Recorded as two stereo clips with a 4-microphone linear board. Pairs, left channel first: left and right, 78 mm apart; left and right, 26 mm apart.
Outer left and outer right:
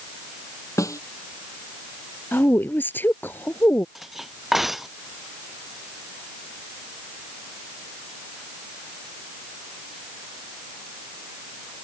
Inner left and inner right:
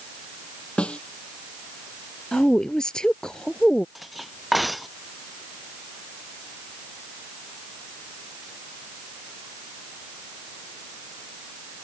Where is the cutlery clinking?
5° right (ahead or behind).